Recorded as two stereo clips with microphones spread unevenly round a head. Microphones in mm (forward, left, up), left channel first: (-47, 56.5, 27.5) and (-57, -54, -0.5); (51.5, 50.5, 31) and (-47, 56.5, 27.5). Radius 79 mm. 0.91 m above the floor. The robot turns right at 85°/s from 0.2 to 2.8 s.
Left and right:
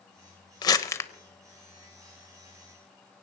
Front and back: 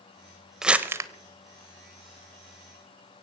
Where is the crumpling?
90° left, 0.8 m; by 1.1 s 130° left, 0.8 m.